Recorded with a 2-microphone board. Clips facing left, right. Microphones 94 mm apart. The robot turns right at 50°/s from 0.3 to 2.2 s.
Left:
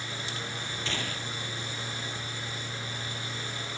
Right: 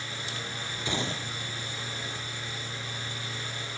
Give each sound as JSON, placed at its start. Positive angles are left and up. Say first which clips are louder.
{"t": 0.8, "sound": "a gunshot", "louder": "right 5 dB", "azimuth_deg": -165}